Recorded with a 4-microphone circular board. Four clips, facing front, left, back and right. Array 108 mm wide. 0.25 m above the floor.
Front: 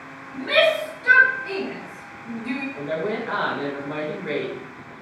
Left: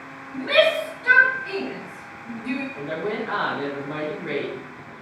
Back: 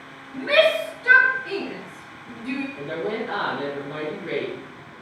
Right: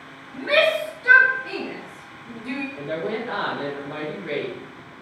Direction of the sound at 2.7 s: 20° left.